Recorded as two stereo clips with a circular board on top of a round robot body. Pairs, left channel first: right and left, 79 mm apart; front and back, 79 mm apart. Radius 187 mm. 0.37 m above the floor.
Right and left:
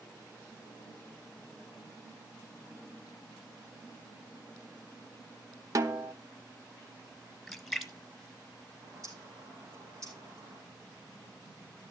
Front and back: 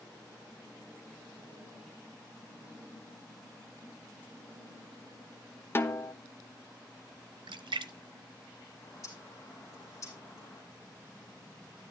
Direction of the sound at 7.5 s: Straight behind.